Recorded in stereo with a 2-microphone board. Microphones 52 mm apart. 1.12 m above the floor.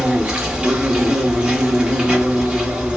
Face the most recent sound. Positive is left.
turn(degrees=-15)  # may be behind; listen again after turning